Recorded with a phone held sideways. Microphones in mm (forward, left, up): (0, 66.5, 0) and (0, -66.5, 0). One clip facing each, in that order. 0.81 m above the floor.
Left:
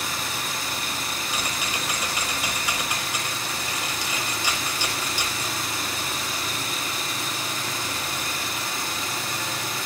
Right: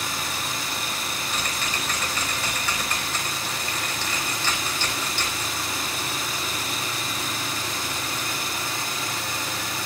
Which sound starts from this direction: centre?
Typing on a keyboard, at 1.3 s.